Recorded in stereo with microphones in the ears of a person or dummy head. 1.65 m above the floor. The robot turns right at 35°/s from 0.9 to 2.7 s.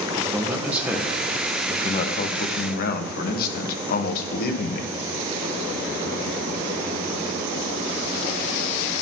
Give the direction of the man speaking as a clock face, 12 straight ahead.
12 o'clock.